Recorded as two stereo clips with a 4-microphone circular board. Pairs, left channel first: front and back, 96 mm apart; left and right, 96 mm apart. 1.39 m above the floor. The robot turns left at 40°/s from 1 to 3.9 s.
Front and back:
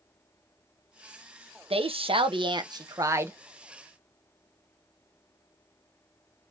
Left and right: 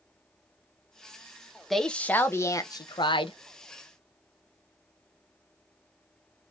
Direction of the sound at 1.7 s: Straight behind.